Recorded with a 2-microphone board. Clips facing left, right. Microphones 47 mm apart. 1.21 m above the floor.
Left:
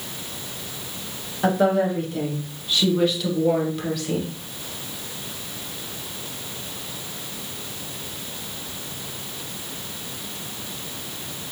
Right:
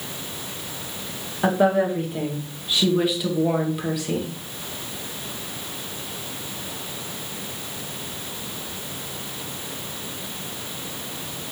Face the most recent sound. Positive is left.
turn(degrees=-10)  # may be behind; listen again after turning